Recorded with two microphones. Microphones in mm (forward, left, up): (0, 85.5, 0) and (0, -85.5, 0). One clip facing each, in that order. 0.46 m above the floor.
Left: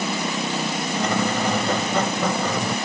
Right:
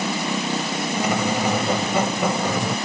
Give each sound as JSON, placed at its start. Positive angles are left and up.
{"t": 1.0, "sound": "a squeak", "side_deg": -10}